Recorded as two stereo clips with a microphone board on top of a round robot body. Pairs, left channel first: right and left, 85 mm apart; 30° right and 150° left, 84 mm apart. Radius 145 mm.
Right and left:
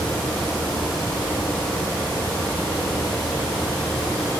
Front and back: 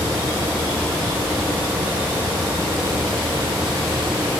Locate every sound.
Only background noise.